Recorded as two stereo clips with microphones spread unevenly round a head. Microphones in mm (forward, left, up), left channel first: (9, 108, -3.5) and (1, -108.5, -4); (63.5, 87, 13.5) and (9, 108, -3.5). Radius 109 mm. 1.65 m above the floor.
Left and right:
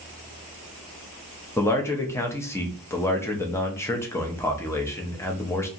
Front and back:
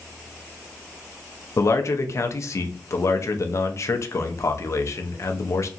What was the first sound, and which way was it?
A man speaking, 10° left.